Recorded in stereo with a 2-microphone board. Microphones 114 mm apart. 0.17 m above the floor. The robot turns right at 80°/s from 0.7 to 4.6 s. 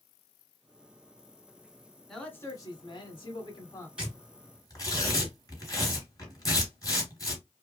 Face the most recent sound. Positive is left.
turn(degrees=35)  # may be behind; listen again after turning